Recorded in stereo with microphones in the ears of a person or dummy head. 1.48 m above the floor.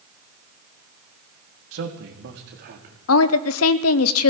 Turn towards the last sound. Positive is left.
turn(degrees=80)